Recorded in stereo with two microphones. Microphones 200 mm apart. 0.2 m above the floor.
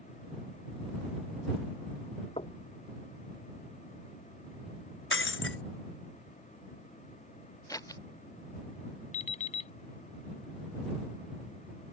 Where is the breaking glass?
80° left.